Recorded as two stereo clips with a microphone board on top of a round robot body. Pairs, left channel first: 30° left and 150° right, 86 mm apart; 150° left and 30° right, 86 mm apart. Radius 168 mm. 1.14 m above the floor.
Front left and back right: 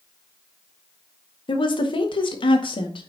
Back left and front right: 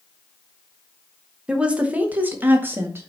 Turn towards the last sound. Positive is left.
turn(degrees=30)